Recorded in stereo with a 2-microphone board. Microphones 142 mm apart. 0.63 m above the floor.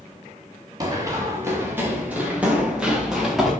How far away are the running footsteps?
About 4.5 m.